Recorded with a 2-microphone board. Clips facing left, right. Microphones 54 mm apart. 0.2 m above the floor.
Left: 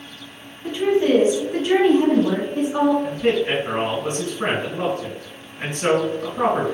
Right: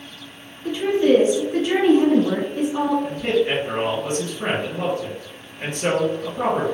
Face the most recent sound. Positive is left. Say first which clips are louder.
# left 1 dB
turn(degrees=50)  # may be behind; listen again after turning